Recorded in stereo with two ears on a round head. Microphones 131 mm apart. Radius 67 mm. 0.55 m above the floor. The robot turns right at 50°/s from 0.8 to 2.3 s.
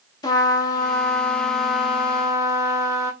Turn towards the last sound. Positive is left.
turn(degrees=-145)